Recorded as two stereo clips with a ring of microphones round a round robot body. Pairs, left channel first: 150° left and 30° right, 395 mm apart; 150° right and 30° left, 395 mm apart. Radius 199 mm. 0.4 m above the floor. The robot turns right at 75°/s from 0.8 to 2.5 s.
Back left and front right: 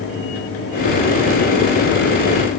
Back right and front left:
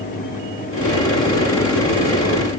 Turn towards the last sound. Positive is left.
No sound to turn to.